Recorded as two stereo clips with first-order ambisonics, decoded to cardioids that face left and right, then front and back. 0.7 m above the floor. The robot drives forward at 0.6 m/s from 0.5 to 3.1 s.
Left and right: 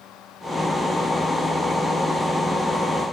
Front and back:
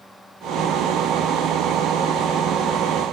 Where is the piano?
I don't hear a piano.